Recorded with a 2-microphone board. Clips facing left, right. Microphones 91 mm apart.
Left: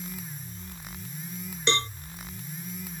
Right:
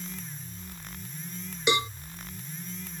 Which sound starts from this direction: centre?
A cowbell, at 1.7 s.